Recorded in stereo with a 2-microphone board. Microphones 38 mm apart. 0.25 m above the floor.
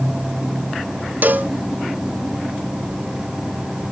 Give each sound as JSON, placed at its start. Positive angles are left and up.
{"t": 1.2, "sound": "a cowbell", "side_deg": -50, "distance_m": 1.0}